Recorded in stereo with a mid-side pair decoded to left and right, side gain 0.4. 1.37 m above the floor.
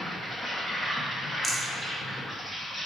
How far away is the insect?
About 1.0 m.